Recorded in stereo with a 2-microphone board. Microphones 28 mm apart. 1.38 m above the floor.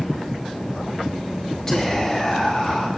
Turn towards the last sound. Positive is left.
turn(degrees=20)  # may be behind; listen again after turning